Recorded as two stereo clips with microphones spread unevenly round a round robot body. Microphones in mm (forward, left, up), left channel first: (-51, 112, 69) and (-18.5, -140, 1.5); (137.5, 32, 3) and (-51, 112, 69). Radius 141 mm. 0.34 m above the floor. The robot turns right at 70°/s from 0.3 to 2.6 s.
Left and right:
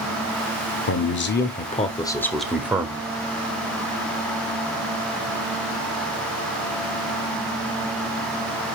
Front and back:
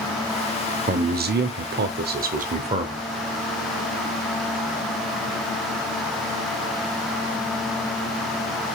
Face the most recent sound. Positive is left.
turn(degrees=-135)